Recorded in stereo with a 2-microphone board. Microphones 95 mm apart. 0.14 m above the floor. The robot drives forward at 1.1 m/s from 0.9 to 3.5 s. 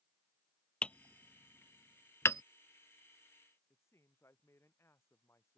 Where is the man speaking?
30° left (ahead or behind).